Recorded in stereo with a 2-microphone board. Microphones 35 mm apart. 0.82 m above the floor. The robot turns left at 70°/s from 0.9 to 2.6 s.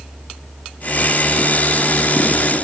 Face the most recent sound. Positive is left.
No sound to turn to.